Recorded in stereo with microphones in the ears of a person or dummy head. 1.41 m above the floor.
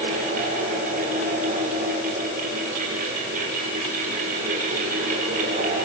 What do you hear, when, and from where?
0.0 s a fan: 45° right (ahead or behind), 8 m